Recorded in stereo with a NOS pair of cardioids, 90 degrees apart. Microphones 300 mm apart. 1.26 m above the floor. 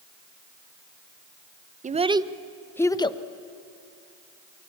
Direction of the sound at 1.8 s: 25° right.